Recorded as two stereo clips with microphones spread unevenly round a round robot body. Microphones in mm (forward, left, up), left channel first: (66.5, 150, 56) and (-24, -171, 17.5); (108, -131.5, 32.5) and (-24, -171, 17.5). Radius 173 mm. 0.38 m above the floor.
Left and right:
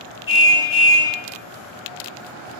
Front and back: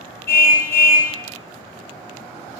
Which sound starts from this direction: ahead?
A car horn, at 0.3 s.